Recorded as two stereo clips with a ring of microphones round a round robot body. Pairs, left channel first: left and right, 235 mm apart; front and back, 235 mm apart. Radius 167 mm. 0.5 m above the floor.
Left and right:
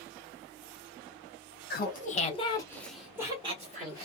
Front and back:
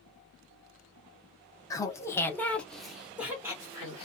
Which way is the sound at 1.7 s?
70° left.